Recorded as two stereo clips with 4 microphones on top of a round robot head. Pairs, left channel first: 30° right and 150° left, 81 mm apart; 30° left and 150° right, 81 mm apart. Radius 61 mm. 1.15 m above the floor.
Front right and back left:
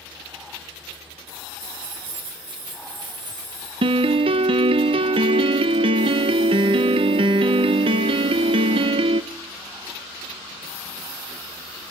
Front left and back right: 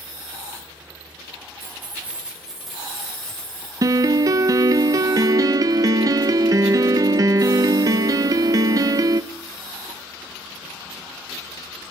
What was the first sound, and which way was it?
Keys jangling, 145° left.